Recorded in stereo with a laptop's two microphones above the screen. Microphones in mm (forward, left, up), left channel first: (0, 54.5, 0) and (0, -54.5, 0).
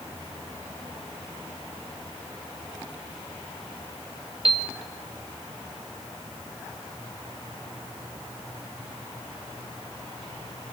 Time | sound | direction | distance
4.5 | a piano | 55° right (ahead or behind) | 1.0 m